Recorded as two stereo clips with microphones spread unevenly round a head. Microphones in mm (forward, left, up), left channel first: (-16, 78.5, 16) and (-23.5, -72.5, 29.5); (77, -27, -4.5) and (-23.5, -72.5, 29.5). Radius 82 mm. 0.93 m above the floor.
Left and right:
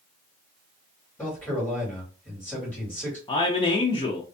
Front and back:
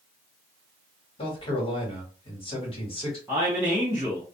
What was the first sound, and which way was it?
A man speaking, 10° left.